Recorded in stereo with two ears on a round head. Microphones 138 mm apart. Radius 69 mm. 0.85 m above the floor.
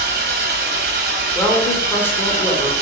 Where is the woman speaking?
15° left (ahead or behind), 1.0 m.